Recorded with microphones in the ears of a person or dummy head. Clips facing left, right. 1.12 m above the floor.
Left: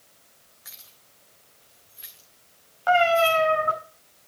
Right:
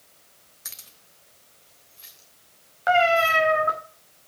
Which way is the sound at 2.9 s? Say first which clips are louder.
Left 1 dB; 20° right (ahead or behind).